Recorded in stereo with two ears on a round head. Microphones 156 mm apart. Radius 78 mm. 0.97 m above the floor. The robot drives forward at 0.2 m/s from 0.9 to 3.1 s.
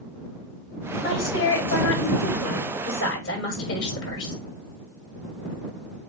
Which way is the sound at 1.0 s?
85° left.